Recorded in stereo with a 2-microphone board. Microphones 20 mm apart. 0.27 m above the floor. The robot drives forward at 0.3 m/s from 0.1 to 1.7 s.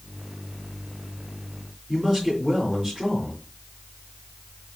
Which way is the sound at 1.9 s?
Centre (ahead or behind).